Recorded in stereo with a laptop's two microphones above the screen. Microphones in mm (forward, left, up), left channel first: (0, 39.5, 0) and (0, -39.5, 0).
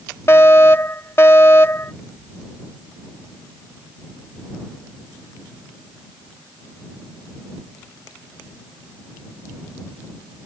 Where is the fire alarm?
35° left (ahead or behind).